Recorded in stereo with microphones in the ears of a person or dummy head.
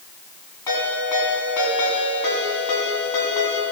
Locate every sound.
0.7 s a ringtone: 15° left (ahead or behind), 6.5 m